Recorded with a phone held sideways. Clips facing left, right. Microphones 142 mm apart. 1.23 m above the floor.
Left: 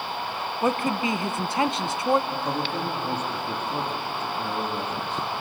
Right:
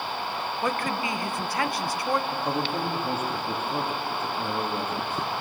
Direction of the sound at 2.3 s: 5° right (ahead or behind).